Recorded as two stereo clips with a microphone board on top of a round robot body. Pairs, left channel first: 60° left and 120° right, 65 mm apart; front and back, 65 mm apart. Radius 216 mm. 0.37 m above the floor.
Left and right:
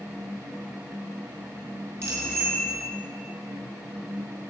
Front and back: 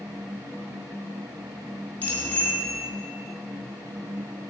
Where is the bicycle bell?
70° right, 5.5 m.